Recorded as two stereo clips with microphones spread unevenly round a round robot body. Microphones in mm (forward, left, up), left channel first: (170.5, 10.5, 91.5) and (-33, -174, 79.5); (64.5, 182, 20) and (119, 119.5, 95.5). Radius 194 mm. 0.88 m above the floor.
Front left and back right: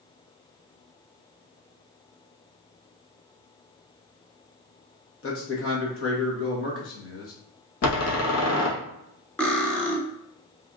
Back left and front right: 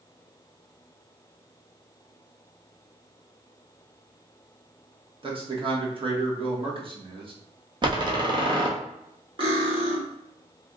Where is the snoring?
I don't hear snoring.